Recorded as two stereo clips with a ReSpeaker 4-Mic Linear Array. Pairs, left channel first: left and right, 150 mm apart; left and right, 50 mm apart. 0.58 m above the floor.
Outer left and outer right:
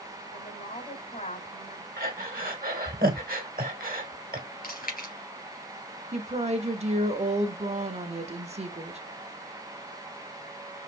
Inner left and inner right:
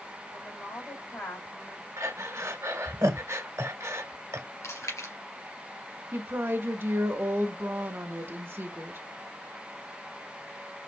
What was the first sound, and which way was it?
A woman speaking, 55° left (ahead or behind).